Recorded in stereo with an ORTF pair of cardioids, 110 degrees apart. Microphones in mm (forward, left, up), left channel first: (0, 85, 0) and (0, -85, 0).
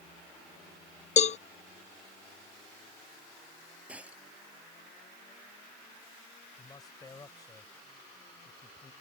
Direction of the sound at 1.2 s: 40° left.